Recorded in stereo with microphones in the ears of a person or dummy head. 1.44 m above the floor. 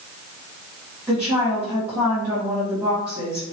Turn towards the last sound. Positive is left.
turn(degrees=-5)  # may be behind; listen again after turning